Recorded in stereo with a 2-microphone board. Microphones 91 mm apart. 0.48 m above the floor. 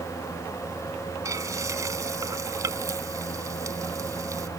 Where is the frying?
35° right (ahead or behind).